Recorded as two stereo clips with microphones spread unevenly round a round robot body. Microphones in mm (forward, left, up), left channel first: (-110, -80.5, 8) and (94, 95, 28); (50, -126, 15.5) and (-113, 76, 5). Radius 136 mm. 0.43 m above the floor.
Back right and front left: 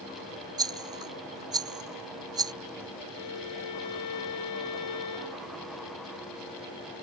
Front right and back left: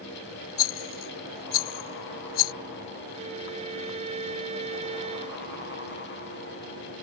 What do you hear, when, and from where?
0.6 s a rattle: 35° right
3.1 s a violin: 165° right